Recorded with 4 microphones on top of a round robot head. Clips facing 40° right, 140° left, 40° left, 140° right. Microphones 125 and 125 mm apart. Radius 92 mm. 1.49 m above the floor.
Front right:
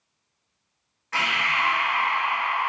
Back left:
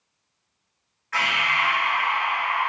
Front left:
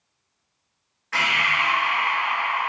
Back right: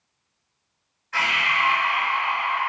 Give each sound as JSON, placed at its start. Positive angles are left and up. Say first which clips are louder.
{"t": 1.1, "sound": "breathing", "louder": "back left 1 dB, even", "azimuth_deg": 20, "distance_m": 0.8}